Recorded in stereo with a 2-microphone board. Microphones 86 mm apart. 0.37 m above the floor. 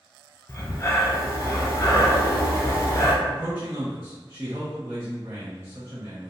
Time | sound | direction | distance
0.5 | breathing | 35° left (ahead or behind) | 0.7 m
3.2 | a man speaking | 25° right (ahead or behind) | 1.1 m